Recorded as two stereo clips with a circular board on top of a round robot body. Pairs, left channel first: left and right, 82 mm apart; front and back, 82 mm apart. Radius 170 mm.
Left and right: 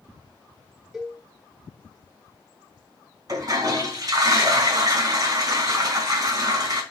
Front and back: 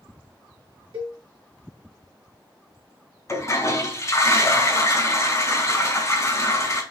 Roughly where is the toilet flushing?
Ahead right.